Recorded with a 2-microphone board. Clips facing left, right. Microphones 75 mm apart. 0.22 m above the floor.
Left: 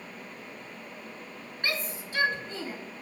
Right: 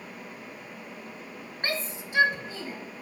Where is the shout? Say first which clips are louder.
Right 1 dB; 35° right (ahead or behind), 1.4 m; by 2.8 s 5° left (ahead or behind), 1.7 m.